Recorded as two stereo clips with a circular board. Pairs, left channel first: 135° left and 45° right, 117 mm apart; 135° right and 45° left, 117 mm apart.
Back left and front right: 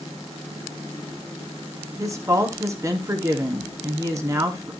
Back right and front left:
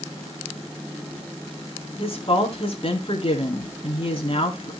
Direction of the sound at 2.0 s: 105° right.